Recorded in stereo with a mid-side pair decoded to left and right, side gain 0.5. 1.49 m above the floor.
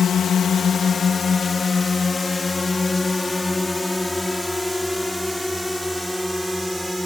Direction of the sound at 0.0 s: 55° left.